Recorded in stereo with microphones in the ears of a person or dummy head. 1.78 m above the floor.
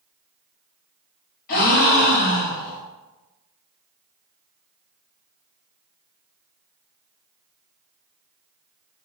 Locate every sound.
1.5 s a gasp: 50° left (ahead or behind), 1.3 m